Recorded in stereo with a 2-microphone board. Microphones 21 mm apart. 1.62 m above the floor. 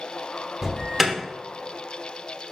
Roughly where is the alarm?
Centre.